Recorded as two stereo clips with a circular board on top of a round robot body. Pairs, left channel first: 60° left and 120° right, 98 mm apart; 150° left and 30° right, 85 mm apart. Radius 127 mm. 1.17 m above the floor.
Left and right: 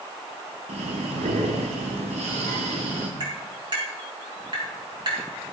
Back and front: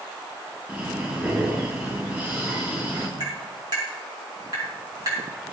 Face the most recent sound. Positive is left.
turn(degrees=-75)